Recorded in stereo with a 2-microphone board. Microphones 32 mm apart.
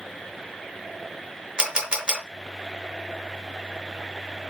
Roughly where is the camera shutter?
Right.